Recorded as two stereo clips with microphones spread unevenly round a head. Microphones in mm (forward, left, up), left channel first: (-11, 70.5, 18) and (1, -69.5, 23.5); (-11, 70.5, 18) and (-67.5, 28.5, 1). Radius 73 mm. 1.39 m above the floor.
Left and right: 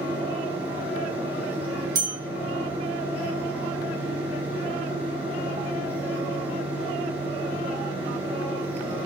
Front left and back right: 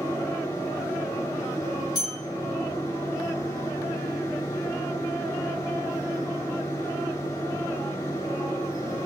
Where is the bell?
20° right, 1.8 m.